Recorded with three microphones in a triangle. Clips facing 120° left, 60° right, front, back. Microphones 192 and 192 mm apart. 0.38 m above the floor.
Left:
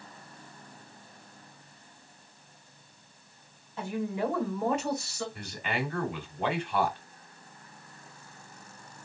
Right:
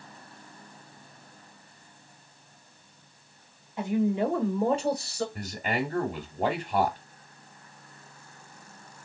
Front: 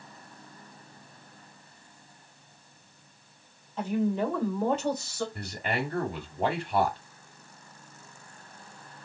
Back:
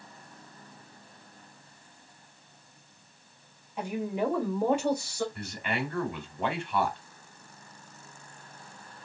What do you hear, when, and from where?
3.8 s a woman speaking: 115° right, 1.1 m; by 5.2 s 105° right, 1.7 m
5.3 s a man speaking: 35° right, 1.3 m